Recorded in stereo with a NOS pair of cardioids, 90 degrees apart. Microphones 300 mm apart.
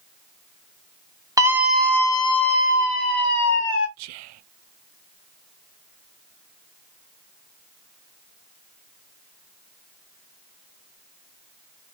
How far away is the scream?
About 1.2 m.